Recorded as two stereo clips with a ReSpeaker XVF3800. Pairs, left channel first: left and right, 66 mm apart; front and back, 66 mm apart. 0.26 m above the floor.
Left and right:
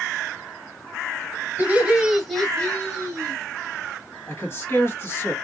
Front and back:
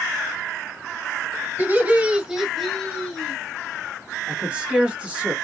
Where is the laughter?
140° right, 1.4 m; by 3.4 s 60° left, 1.5 m.